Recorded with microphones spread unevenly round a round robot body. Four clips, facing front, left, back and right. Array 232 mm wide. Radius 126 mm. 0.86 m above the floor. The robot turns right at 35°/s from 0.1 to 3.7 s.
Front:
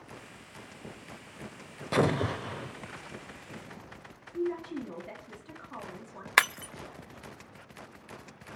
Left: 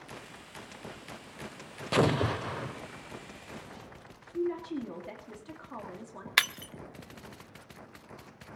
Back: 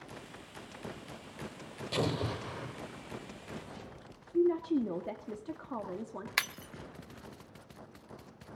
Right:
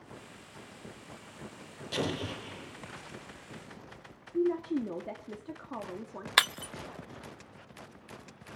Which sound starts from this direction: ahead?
Breaking glass, at 6.4 s.